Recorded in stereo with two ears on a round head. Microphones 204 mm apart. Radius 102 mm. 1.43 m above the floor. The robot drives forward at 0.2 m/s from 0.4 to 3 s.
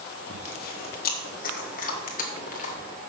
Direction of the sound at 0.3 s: 45° left (ahead or behind).